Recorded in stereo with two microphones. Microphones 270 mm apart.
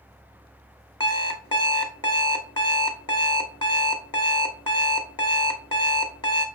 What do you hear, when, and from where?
1.0 s an alarm clock: 20° left (ahead or behind), 0.7 m